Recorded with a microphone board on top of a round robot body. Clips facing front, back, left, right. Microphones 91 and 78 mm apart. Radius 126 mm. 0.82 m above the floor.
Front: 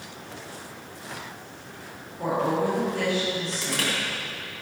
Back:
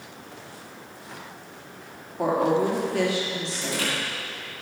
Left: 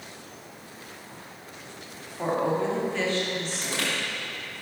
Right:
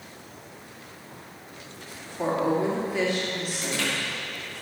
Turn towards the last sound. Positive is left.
turn(degrees=35)